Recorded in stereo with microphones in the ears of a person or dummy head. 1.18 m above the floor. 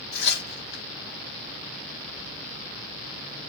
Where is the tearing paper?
60° left (ahead or behind), 0.9 m.